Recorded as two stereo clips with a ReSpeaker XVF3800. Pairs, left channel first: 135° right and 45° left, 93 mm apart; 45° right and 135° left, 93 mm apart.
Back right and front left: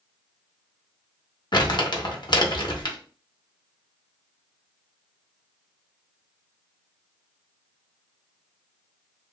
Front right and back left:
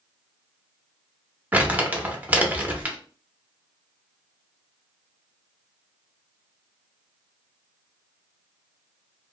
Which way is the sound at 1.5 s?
155° right.